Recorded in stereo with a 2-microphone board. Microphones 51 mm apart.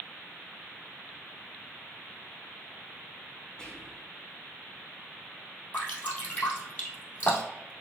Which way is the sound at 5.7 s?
30° left (ahead or behind).